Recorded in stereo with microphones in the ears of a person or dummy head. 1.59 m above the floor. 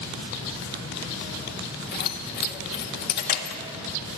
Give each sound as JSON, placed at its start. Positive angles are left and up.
{"t": 1.9, "sound": "keys jangling", "side_deg": 50, "distance_m": 1.7}